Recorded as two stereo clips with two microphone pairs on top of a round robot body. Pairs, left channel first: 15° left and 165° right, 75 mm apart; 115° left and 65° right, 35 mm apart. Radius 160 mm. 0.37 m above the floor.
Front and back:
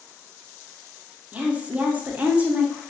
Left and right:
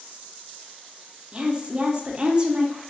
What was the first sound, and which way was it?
A woman speaking, 120° right.